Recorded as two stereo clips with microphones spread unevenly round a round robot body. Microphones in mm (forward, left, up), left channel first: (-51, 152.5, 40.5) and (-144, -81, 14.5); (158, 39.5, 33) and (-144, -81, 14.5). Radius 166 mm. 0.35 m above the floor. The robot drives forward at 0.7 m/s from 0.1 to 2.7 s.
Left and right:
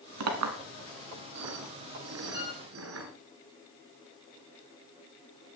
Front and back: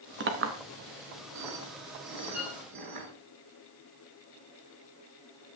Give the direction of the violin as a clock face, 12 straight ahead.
8 o'clock.